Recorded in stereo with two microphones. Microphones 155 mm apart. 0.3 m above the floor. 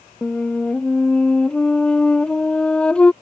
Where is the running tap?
I don't hear a running tap.